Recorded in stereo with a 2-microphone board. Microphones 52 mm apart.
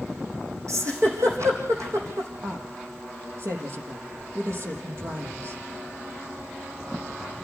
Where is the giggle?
65° right (ahead or behind), 4 m.